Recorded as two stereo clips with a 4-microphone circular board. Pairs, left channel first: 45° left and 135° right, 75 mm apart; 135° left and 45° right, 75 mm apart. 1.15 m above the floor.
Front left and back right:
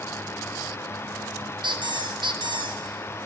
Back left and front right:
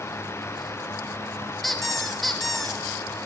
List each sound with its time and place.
1.6 s a squeak: 135° right, 0.6 m